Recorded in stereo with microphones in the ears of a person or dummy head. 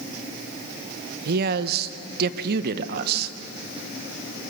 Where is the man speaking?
65° right (ahead or behind), 0.8 m.